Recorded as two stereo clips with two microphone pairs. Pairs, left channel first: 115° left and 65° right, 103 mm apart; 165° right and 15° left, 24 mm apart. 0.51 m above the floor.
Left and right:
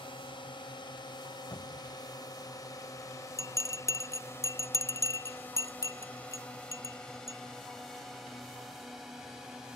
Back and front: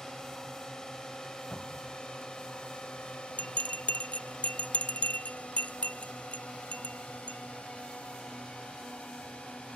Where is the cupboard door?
160° left.